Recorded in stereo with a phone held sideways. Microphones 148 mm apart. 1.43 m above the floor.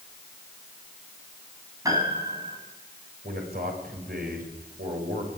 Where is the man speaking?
85° right, 7 m.